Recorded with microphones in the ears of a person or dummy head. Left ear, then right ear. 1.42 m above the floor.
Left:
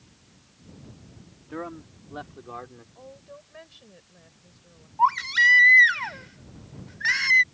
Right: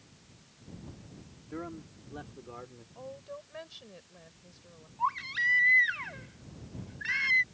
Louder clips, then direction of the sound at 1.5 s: Left 5 dB; 40° left (ahead or behind).